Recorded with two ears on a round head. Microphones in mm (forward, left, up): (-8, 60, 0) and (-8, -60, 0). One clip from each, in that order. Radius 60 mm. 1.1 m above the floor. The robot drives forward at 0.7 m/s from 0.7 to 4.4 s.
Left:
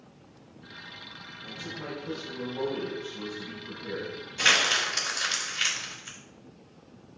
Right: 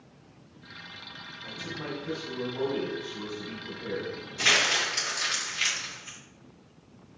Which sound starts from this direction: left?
Crumpling, at 4.4 s.